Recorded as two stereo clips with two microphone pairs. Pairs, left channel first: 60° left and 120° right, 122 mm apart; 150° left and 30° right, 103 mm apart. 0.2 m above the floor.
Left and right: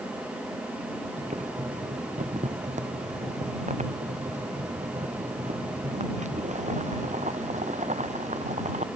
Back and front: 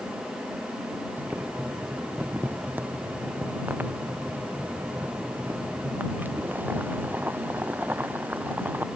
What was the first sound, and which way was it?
Boiling, 105° right.